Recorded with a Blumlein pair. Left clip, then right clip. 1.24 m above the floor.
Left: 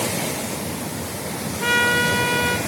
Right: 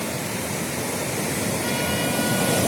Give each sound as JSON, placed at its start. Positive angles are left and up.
{"t": 1.6, "sound": "a trumpet", "azimuth_deg": 30, "distance_m": 1.7}